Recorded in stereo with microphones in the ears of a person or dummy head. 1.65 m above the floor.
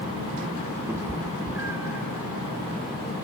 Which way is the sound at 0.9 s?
15° right (ahead or behind).